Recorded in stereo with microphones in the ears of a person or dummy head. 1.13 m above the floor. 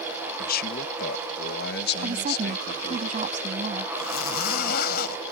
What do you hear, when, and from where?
0.4 s a man speaking: 50° left (ahead or behind); by 3.0 s 65° left (ahead or behind)
2.0 s a woman speaking: 45° right (ahead or behind)
4.0 s a zipper: 60° left (ahead or behind)